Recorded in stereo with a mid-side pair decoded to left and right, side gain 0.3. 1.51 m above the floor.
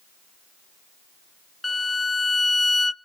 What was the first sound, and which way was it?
A violin, 30° left.